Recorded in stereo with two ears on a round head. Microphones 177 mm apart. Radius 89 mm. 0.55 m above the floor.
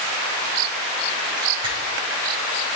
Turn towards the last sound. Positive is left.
turn(degrees=-25)  # may be behind; listen again after turning